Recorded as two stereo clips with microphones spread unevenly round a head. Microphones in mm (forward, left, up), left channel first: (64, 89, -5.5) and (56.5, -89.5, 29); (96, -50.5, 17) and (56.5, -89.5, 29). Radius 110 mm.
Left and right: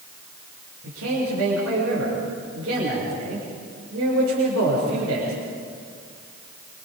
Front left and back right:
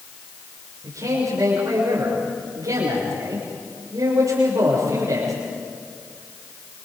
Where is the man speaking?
120° right, 6.5 m.